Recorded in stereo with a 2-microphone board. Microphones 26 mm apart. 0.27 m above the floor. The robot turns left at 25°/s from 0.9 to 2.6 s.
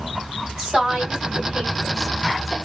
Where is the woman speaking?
35° right (ahead or behind), 1.5 m; by 2.5 s 25° right (ahead or behind), 1.5 m.